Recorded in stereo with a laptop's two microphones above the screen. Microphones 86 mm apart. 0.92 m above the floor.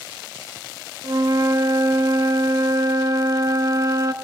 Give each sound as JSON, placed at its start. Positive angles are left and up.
{"t": 1.0, "sound": "a flute", "side_deg": -40, "distance_m": 0.5}